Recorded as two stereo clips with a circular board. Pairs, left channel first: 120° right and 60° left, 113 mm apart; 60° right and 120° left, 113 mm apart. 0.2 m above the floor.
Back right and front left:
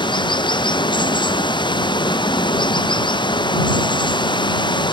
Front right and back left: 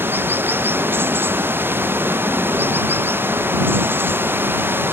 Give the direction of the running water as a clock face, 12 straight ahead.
6 o'clock.